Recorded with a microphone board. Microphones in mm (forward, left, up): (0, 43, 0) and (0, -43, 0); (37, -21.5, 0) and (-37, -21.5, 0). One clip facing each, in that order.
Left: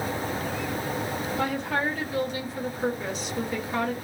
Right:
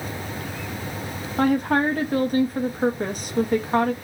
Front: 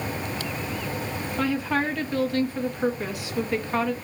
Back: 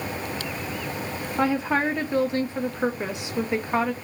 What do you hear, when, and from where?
1.4 s a woman speaking: 115° right, 0.6 m